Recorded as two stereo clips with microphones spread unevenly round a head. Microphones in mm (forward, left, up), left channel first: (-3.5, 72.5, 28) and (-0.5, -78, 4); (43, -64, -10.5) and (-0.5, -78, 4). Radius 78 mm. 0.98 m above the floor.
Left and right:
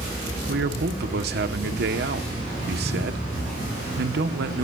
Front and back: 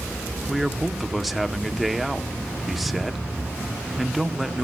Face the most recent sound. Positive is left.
turn(degrees=-75)